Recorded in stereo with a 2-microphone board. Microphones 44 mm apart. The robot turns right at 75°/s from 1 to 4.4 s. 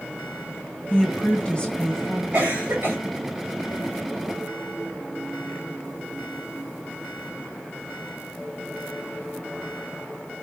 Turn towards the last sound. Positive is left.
turn(degrees=40)